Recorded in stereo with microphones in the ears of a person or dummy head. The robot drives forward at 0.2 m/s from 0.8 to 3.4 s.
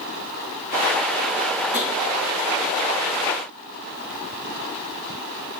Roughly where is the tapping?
Left.